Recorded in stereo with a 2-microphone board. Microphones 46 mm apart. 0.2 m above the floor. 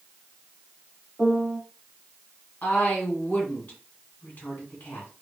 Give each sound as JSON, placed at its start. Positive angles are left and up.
{"t": 1.2, "sound": "a piano", "side_deg": -20, "distance_m": 0.7}
{"t": 2.6, "sound": "a woman speaking", "side_deg": 40, "distance_m": 1.8}